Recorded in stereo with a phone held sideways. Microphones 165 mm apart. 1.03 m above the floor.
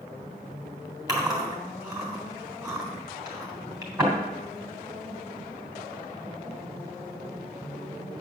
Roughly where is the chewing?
Right.